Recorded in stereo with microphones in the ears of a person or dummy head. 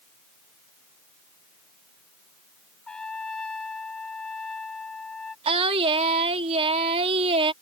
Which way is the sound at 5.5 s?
35° right (ahead or behind).